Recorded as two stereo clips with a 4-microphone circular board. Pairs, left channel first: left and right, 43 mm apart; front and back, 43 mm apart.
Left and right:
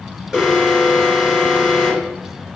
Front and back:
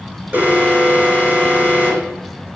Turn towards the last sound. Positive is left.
turn(degrees=-160)